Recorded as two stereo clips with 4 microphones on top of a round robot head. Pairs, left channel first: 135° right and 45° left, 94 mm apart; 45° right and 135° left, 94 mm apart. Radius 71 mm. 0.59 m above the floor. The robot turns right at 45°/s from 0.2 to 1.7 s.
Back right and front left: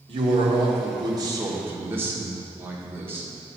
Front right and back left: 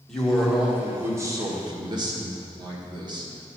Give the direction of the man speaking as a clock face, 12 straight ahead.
11 o'clock.